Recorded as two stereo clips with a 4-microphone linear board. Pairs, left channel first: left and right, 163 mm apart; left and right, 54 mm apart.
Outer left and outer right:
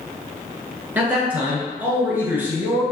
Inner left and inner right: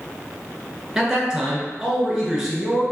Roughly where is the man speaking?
Centre.